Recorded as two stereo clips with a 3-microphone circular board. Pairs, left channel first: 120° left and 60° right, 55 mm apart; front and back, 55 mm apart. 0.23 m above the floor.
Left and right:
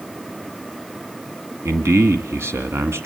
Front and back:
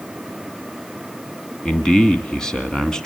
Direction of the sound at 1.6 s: 75° right.